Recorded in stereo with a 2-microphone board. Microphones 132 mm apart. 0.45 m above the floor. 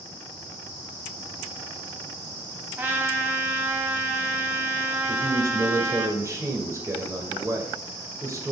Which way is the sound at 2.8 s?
15° right (ahead or behind).